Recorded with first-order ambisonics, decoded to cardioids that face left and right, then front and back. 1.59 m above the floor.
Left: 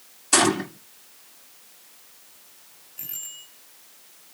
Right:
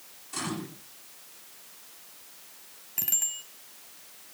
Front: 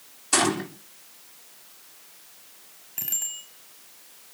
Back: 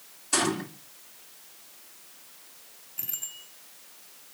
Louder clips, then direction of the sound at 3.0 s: Right 8 dB, front 7 dB; 55° right.